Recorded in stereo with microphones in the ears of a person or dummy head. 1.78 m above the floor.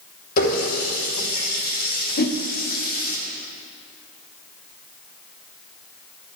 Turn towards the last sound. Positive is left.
turn(degrees=55)  # may be behind; listen again after turning